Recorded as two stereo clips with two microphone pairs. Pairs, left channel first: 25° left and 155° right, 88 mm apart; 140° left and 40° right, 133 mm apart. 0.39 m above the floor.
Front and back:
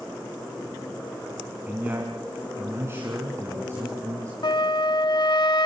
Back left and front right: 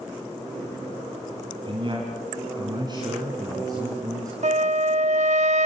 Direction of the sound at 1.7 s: 85° right.